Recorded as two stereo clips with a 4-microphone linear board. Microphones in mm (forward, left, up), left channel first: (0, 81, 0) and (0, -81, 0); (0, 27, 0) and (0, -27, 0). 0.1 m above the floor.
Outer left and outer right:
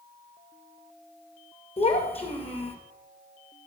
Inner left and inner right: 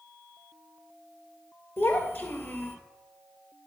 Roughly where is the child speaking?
Left.